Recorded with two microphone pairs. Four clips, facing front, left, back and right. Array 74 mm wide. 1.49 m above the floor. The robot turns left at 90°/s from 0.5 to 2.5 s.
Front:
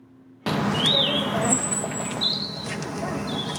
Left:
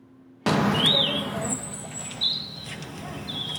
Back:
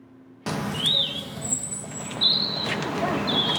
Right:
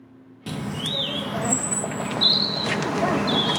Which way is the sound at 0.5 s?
70° left.